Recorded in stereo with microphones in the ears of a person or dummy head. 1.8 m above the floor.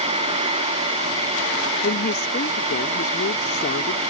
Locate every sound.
1.8 s a woman speaking: 50° left (ahead or behind)